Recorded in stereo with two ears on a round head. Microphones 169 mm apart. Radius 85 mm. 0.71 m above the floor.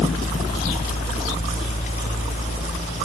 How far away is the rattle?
I don't hear a rattle.